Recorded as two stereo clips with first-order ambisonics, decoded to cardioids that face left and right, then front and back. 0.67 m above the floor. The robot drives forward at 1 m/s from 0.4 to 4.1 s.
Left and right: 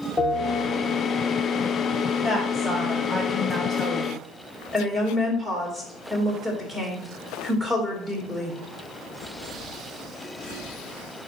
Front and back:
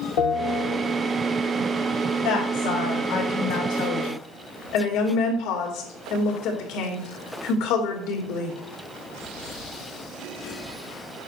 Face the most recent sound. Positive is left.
turn(degrees=-10)